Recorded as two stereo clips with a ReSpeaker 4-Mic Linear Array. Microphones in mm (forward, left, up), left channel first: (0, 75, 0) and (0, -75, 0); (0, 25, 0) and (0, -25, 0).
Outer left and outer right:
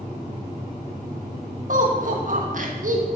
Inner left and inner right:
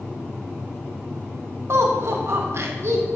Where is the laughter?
55° right (ahead or behind), 1.2 m.